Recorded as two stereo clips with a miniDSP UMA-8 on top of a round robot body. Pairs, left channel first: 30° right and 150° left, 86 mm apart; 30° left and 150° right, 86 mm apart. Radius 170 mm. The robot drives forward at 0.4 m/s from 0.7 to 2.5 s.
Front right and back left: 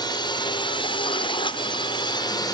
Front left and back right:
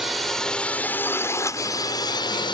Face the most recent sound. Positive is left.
turn(degrees=5)